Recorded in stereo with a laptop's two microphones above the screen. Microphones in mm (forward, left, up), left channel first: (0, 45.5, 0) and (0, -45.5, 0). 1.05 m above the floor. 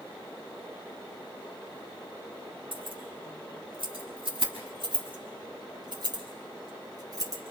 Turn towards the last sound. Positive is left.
turn(degrees=-40)  # may be behind; listen again after turning